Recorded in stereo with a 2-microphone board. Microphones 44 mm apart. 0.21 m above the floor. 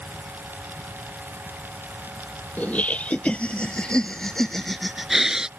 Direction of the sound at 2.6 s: 40° left (ahead or behind).